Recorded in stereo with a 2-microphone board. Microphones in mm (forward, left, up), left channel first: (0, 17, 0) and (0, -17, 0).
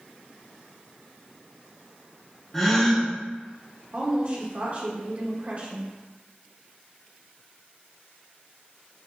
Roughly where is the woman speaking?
Right.